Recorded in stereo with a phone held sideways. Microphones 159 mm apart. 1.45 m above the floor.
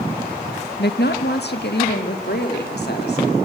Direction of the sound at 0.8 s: 80° left.